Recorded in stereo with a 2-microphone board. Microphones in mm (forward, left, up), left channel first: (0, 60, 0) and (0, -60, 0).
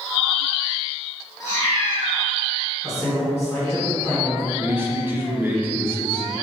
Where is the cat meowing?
30° left (ahead or behind), 1.6 m.